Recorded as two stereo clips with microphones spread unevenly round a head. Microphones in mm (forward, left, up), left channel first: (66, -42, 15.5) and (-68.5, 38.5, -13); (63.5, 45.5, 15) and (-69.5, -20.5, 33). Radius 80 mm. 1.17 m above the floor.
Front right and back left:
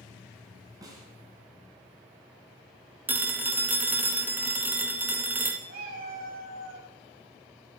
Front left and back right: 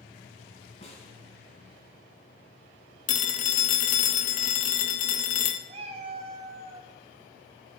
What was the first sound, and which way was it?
A snare drum, 75° left.